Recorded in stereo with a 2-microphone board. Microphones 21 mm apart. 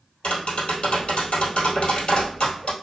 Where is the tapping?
80° left, 1.7 m.